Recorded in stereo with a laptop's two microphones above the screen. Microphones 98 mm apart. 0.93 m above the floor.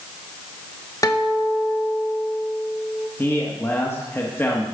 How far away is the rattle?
No rattle in this recording.